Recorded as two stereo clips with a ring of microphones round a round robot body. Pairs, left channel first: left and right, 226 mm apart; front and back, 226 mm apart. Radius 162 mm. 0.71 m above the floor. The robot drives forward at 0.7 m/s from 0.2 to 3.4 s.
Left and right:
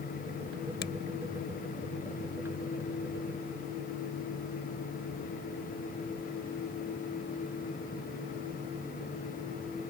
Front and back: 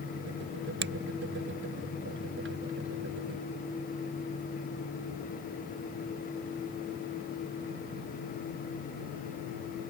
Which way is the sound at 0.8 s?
145° left.